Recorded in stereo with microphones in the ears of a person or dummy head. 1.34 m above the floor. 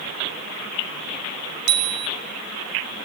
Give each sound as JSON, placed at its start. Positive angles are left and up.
{"t": 1.7, "sound": "a bicycle bell", "side_deg": -85, "distance_m": 3.0}